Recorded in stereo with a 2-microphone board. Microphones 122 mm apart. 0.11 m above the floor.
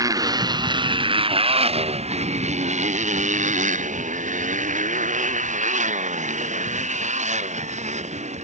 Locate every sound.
0.0 s a motorcycle: 30° right (ahead or behind); by 8.4 s 70° right (ahead or behind)